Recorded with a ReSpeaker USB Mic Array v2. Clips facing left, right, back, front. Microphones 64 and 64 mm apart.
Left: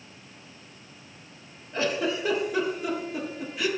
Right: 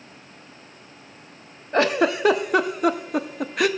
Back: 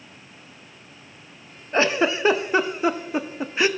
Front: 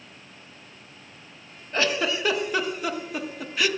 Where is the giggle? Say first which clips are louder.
Right 7 dB, back 4 dB; 115° right, 0.5 m.